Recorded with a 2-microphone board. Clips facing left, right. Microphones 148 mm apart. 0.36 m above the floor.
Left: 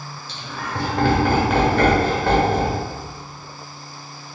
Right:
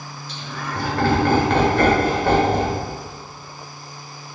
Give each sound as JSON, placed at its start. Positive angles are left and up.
{"t": 0.3, "sound": "laughter", "side_deg": 30, "distance_m": 1.4}